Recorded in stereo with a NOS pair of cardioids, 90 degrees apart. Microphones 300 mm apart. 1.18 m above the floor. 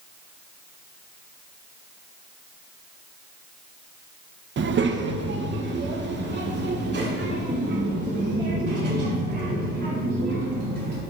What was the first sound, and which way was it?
A child speaking, 40° right.